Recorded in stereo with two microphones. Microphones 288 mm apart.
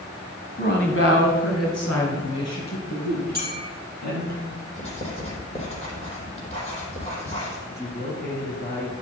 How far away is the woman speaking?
About 1.3 m.